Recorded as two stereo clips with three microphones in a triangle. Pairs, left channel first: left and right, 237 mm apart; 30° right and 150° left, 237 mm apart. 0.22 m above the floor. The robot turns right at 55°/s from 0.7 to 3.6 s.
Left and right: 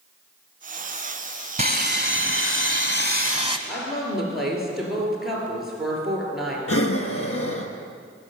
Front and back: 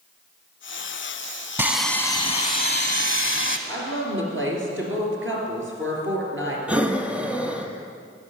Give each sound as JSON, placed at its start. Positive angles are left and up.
{"t": 1.6, "sound": "sawing", "azimuth_deg": -130, "distance_m": 0.9}
{"t": 3.7, "sound": "a woman speaking", "azimuth_deg": 180, "distance_m": 3.0}
{"t": 6.7, "sound": "breathing", "azimuth_deg": 65, "distance_m": 0.8}